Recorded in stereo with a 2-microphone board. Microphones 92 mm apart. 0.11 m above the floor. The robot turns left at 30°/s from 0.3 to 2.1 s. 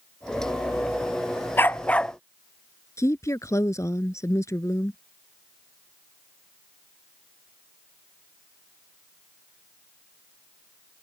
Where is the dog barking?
25° left (ahead or behind); by 2.1 s 10° left (ahead or behind).